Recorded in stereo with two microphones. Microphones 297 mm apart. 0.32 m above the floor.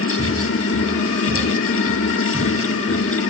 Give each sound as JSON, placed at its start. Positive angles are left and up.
{"t": 0.2, "sound": "footsteps", "side_deg": -40, "distance_m": 4.0}